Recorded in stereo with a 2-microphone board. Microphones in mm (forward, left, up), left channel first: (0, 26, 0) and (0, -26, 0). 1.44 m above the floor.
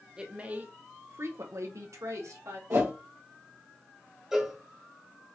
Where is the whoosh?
75° right (ahead or behind), 1.2 m.